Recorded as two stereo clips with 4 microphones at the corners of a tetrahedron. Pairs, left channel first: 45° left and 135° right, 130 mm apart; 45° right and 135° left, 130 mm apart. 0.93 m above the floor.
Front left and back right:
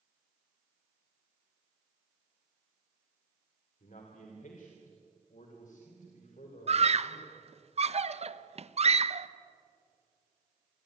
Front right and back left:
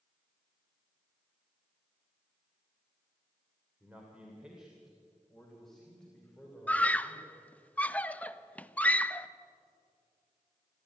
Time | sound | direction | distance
3.8 | a man speaking | 55° left | 2.5 m
6.7 | a scream | 120° right | 0.7 m